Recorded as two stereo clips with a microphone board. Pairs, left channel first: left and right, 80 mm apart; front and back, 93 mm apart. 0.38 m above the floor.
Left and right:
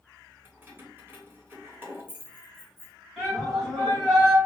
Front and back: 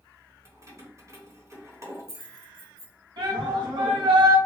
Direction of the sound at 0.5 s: 140° right.